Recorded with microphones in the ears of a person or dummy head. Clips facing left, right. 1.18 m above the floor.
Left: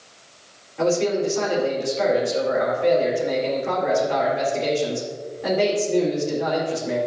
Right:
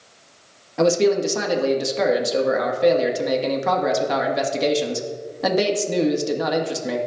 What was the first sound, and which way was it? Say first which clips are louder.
A man speaking: right 3 dB; 85° right.